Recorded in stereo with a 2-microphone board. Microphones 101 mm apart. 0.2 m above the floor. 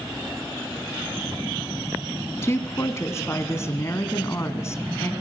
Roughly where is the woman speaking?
Left.